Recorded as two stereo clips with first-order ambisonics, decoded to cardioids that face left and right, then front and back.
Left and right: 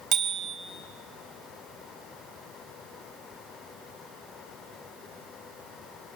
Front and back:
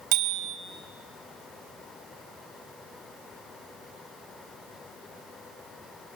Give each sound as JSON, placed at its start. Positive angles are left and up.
{"t": 0.1, "sound": "a bicycle bell", "azimuth_deg": -155, "distance_m": 4.0}